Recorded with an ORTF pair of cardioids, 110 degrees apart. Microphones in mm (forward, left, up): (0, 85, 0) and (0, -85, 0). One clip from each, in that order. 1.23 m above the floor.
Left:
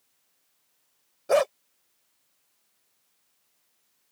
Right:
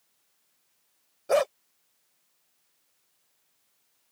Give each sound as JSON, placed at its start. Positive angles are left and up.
{"t": 1.3, "sound": "a dog barking", "azimuth_deg": 10}